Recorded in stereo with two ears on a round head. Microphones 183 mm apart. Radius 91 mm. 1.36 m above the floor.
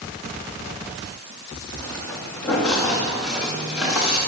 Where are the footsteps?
10° left (ahead or behind), 9 m; by 4.2 s 5° right (ahead or behind), 10.5 m.